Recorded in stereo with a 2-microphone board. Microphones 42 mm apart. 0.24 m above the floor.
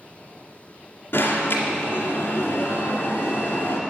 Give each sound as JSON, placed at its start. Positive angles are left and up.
{"t": 1.1, "sound": "an alarm", "side_deg": 60, "distance_m": 1.9}